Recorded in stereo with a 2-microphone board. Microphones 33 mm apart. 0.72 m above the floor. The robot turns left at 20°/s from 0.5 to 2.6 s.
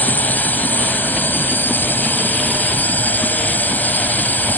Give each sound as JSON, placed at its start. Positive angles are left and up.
{"t": 0.0, "sound": "a drone", "azimuth_deg": 110}